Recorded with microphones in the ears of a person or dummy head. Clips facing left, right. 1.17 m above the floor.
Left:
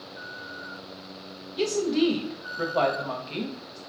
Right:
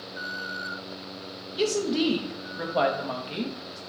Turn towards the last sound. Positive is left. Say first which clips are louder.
# left 1 dB
turn(degrees=0)  # may be behind; listen again after turning